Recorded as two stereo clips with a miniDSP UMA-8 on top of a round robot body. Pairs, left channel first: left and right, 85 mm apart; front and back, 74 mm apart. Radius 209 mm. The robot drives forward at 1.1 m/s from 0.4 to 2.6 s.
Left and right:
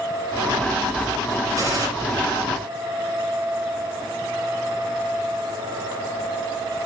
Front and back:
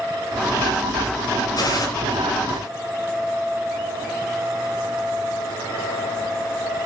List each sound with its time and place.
1.6 s a gunshot: 35° right, 5.5 m; by 1.9 s 40° right, 5.5 m